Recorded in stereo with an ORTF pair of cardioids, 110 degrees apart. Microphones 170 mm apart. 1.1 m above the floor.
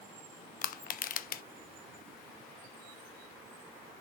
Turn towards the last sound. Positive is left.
turn(degrees=60)